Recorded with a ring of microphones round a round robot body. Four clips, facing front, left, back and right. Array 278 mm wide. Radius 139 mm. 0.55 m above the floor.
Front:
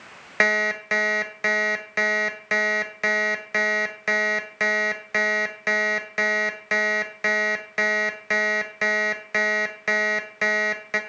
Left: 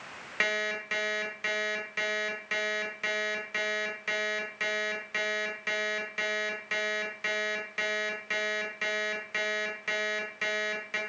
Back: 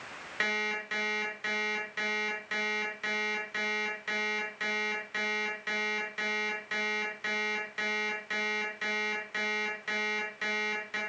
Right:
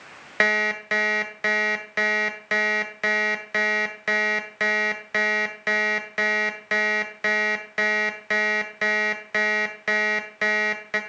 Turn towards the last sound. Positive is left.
turn(degrees=-40)